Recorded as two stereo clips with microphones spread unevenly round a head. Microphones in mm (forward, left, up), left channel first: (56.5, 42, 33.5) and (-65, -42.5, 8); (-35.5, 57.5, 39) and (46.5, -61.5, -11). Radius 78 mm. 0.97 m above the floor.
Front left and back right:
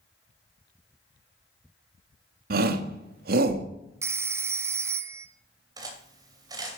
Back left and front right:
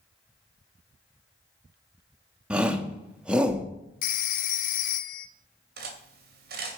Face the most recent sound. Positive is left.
turn(degrees=-80)